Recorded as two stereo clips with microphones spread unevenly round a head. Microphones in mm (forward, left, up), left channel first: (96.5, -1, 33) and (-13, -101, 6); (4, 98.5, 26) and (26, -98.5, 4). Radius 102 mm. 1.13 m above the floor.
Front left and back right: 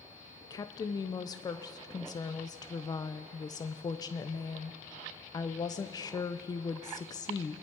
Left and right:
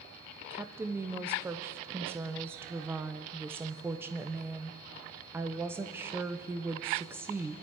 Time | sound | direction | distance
0.5 | a woman speaking | 20° right | 0.5 m